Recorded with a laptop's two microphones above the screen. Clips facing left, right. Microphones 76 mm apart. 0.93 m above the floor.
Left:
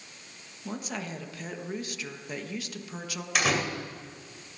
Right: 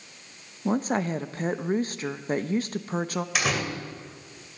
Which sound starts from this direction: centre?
A door slam, at 3.4 s.